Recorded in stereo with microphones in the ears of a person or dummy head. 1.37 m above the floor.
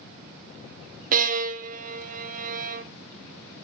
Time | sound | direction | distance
1.1 | a violin | 45° right (ahead or behind) | 0.8 m